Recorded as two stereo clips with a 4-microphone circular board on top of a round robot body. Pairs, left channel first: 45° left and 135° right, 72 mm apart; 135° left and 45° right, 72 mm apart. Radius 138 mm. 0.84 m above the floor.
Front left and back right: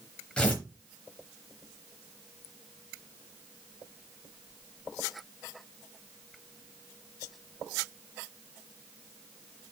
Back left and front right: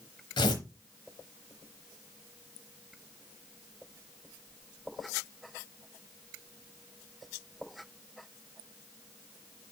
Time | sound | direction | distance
0.4 | tearing paper | 125° left | 1.0 m